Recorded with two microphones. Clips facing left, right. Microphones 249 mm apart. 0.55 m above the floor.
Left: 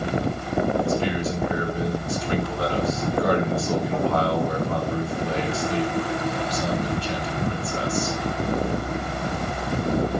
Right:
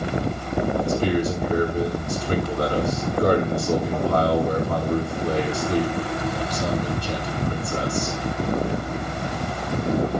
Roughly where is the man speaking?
Right.